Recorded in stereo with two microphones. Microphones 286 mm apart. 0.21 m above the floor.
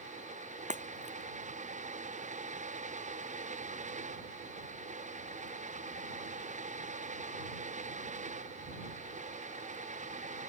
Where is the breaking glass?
25° right (ahead or behind).